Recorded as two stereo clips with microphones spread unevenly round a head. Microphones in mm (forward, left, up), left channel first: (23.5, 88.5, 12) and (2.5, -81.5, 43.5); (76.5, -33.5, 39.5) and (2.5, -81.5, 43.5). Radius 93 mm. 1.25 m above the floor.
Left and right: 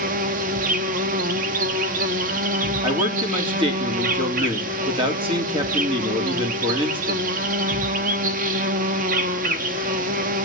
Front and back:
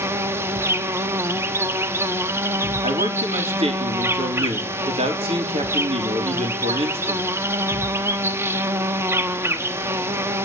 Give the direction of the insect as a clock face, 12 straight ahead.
3 o'clock.